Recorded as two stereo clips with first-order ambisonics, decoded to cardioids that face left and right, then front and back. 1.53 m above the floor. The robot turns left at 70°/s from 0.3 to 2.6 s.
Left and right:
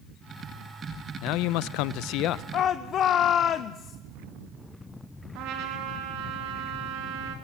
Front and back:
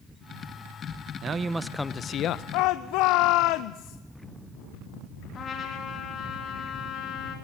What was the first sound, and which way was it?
A man speaking, 125° left.